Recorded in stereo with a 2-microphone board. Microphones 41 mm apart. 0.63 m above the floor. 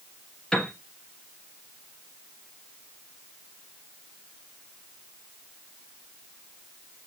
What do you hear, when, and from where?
0.5 s a piano: 20° left (ahead or behind), 3 m